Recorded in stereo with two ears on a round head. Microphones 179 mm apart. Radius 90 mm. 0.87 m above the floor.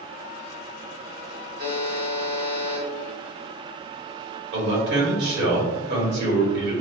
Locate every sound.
1.6 s a buzzer: 50° right (ahead or behind), 1.1 m
4.5 s a man speaking: 60° right (ahead or behind), 1.5 m